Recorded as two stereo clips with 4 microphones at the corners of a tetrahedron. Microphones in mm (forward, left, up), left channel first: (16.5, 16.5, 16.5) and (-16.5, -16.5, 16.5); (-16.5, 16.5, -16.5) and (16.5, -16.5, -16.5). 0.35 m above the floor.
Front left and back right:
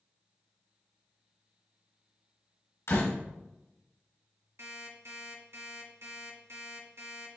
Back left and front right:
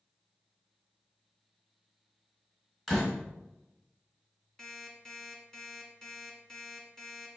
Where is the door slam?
55° left, 3 m.